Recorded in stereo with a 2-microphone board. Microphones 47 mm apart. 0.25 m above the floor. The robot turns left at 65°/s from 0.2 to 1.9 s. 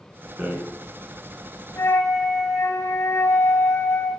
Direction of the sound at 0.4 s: 25° right (ahead or behind).